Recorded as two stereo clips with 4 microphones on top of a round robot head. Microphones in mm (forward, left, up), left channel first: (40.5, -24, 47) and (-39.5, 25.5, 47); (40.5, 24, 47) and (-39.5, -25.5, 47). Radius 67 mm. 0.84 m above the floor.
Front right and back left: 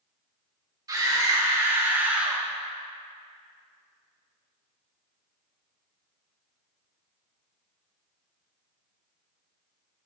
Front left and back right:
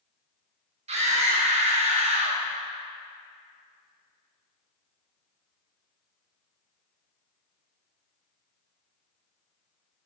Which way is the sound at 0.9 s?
160° right.